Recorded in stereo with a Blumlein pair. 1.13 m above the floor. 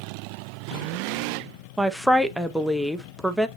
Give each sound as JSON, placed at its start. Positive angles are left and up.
{"t": 1.8, "sound": "a woman speaking", "azimuth_deg": 0, "distance_m": 0.6}